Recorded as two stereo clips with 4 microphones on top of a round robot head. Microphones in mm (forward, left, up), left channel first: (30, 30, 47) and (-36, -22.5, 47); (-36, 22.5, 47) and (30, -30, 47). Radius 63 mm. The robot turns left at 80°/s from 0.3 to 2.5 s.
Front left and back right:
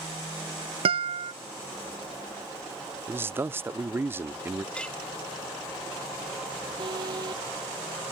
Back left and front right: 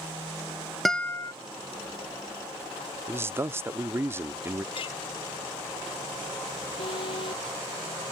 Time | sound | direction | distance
0.8 | a guitar | 130° right | ?
3.1 | a man speaking | 90° right | ?
4.8 | a clink | 120° left | ?
6.8 | an alarm | 175° left | ?